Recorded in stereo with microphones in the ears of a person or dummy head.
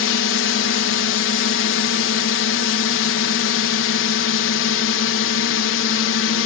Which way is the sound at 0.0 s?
65° left (ahead or behind).